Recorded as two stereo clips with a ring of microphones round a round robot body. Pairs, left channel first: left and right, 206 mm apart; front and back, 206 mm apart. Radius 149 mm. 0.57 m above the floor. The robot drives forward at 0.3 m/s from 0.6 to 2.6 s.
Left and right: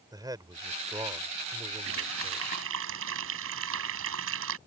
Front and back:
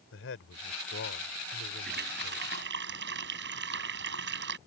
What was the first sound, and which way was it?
A man speaking, 20° right.